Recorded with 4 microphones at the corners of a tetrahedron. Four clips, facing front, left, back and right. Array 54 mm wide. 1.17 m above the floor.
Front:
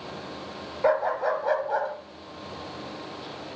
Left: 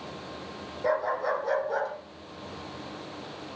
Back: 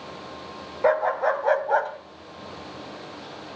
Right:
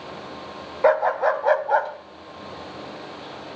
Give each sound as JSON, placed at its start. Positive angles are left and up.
{"t": 0.8, "sound": "a dog barking", "azimuth_deg": -100, "distance_m": 2.5}